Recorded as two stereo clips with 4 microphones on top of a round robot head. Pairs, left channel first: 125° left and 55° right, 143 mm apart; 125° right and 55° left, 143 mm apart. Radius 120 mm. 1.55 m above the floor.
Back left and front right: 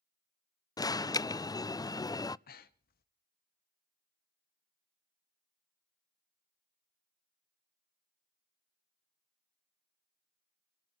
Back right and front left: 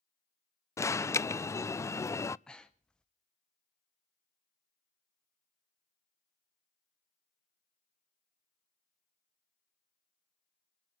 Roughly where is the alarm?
Behind.